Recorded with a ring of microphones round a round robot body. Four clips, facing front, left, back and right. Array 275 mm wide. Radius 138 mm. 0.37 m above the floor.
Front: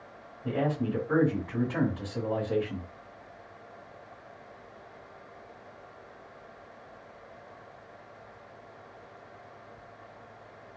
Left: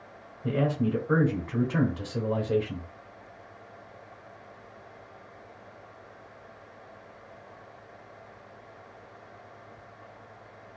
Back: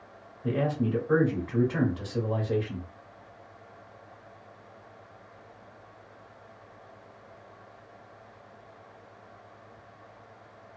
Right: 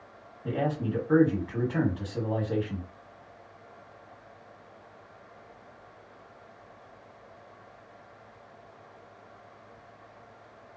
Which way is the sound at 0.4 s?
120° left.